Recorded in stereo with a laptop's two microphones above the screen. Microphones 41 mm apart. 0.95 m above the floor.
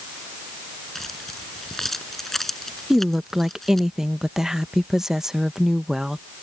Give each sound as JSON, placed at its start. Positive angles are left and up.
{"t": 0.9, "sound": "keys jangling", "side_deg": 10}
{"t": 2.9, "sound": "a woman speaking", "side_deg": -10}